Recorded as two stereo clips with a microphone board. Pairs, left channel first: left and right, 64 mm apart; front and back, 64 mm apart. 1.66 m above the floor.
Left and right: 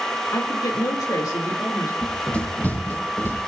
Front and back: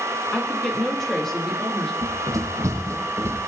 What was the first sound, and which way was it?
A woman speaking, 85° left.